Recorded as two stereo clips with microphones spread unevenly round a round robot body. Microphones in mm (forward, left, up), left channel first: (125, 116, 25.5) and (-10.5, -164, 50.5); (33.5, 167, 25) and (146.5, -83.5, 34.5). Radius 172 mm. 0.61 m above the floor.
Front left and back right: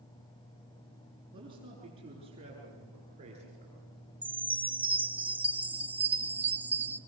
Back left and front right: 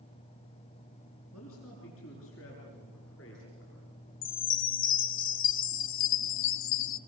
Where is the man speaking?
165° left, 7.5 m; by 3.8 s 170° left, 9 m.